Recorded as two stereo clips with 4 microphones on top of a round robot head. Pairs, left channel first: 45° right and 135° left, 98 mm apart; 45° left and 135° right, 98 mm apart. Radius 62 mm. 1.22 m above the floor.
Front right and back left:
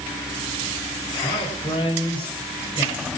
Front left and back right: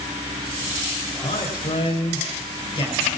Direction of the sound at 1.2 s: 5° right.